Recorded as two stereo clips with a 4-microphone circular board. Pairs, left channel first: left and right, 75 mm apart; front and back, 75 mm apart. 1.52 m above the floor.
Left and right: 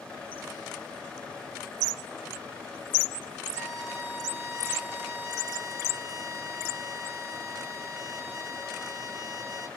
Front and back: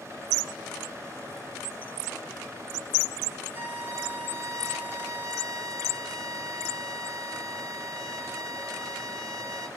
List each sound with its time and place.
3.5 s a violin: 140° right, 1.3 m